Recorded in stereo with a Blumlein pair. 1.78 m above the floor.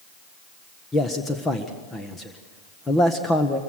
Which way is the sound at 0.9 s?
15° left.